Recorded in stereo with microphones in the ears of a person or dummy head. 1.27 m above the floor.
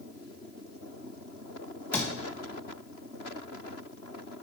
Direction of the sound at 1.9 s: 5° left (ahead or behind).